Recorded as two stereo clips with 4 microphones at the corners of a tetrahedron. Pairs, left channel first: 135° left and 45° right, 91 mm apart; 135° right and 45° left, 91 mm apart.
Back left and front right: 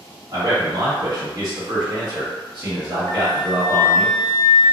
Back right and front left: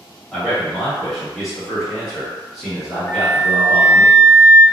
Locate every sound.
0.3 s a man speaking: 45° right, 1.3 m
3.1 s a flute: 165° left, 0.6 m